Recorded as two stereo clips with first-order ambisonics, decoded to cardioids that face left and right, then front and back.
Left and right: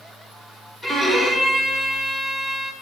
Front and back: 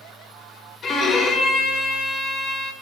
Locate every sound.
0.8 s a violin: 15° left, 0.5 m